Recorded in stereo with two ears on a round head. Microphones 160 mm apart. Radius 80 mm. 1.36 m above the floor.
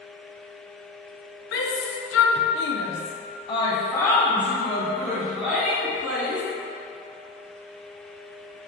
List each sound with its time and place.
1.5 s a shout: 65° left (ahead or behind), 1.1 m; by 6.4 s 5° right (ahead or behind), 3 m